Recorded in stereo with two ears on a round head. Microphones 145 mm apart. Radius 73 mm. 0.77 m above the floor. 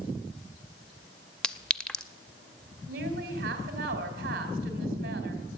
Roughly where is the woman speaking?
Right.